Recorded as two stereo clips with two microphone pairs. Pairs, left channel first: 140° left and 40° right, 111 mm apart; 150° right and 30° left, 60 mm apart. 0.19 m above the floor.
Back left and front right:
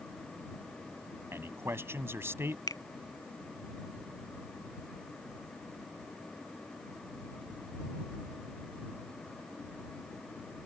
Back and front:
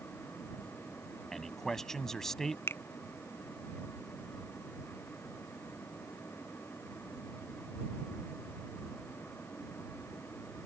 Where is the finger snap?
175° right.